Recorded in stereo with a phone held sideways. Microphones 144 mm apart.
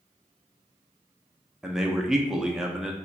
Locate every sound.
1.6 s a man speaking: 5° right (ahead or behind), 0.5 m